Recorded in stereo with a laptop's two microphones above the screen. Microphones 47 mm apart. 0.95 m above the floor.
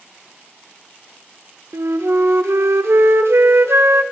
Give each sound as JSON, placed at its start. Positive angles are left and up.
{"t": 1.7, "sound": "a flute", "side_deg": -75, "distance_m": 0.6}